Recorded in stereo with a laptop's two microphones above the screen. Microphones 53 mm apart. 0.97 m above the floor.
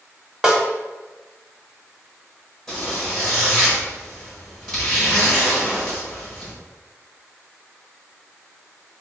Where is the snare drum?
15° right (ahead or behind), 0.8 m.